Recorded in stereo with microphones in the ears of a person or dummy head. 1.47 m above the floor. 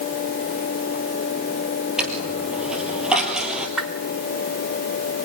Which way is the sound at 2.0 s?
10° right (ahead or behind).